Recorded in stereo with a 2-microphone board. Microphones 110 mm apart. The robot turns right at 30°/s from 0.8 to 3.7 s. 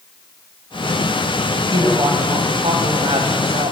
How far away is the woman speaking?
About 2.0 m.